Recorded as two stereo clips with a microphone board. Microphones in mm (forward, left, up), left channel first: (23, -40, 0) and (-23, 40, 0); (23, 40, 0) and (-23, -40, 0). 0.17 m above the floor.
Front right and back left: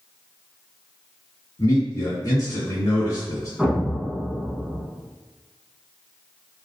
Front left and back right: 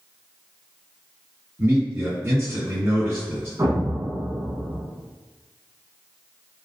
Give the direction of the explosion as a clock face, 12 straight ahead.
5 o'clock.